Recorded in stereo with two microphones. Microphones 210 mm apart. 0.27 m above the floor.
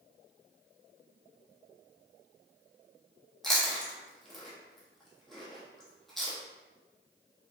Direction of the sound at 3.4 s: Centre (ahead or behind).